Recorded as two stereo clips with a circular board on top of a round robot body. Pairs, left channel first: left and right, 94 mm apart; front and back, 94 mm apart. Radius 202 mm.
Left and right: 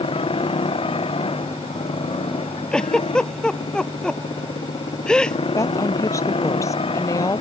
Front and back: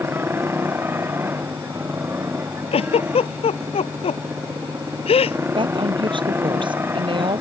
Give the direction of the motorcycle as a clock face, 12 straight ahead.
8 o'clock.